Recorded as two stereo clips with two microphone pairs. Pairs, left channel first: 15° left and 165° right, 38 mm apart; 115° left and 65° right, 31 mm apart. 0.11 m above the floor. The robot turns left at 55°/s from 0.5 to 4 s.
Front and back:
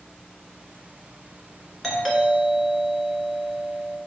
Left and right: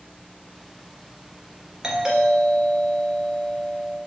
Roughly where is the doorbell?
Ahead right.